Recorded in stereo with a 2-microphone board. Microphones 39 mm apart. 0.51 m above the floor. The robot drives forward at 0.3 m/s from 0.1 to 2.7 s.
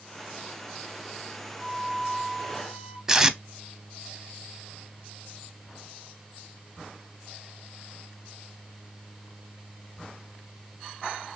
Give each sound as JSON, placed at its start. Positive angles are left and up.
{"t": 1.6, "sound": "a flute", "side_deg": -15, "distance_m": 1.8}
{"t": 3.1, "sound": "tape being pulled", "side_deg": -10, "distance_m": 0.5}